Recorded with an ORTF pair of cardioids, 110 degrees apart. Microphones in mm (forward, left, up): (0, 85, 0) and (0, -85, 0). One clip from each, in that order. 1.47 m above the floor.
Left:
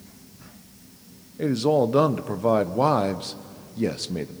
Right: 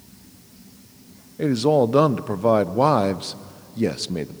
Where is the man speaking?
15° right, 0.7 m.